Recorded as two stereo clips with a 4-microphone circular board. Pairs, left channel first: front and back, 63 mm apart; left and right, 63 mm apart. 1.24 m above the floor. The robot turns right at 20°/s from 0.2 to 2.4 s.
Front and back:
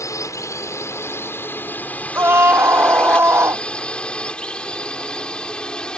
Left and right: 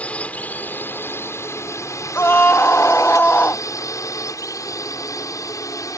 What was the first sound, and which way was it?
A drone, 25° left.